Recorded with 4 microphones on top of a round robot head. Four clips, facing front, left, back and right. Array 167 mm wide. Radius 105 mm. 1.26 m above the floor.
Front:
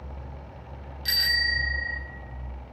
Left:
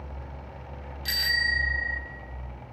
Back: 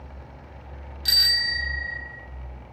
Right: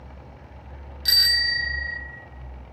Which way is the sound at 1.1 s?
130° right.